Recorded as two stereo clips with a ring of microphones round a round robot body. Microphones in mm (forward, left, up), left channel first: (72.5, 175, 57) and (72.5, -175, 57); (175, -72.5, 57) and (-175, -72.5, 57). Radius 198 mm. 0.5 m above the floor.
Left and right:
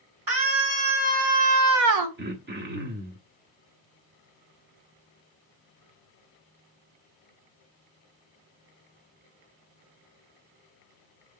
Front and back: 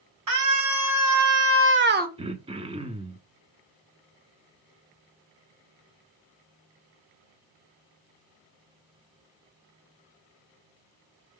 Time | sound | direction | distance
0.3 | a scream | 145° right | 3 m
2.2 | throat clearing | 120° right | 0.9 m